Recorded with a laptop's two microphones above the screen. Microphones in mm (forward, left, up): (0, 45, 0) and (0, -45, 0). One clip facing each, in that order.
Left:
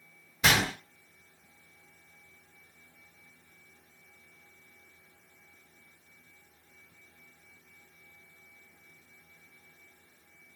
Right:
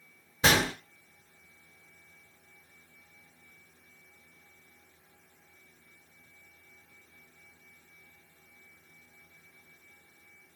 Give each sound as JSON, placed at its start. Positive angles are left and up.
{"t": 0.4, "sound": "a gunshot", "side_deg": -30, "distance_m": 1.1}